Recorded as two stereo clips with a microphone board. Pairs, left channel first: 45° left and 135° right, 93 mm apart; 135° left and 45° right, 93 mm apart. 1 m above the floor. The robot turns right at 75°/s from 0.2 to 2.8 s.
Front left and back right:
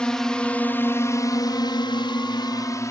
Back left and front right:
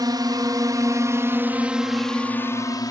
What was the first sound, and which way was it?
A drone, 30° right.